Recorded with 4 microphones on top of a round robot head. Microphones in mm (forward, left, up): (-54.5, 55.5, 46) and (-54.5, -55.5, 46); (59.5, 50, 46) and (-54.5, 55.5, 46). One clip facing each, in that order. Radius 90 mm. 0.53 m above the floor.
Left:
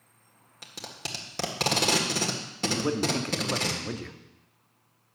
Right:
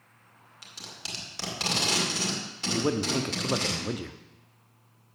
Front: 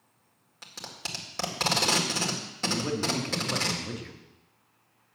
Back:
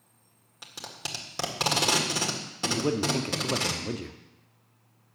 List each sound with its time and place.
0.6 s tape being pulled: 100° left, 1.9 m
2.7 s a man speaking: 155° right, 0.8 m